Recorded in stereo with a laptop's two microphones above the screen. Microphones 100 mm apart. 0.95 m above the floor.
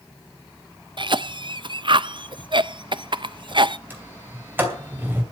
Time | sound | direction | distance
1.0 | a cough | 55° right (ahead or behind) | 0.5 m
3.9 | a sliding door | 20° right (ahead or behind) | 2.5 m